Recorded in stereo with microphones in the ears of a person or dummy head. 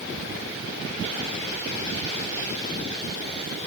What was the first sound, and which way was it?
Only background noise.